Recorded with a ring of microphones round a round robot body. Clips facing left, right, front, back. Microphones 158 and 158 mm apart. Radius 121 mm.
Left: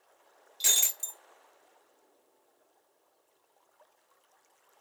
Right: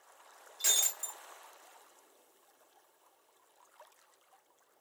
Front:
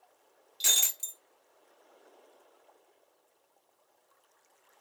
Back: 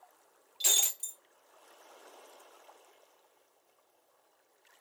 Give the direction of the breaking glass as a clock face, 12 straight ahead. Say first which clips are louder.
Left 1 dB, back 1 dB; 11 o'clock.